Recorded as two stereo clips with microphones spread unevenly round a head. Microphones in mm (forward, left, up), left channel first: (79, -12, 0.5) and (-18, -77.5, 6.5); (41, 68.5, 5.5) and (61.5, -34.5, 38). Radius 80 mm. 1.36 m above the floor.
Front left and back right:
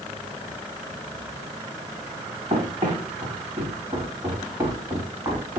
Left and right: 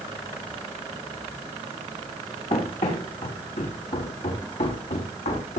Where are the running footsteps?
155° left, 5.5 m; by 5.6 s 140° left, 5.5 m.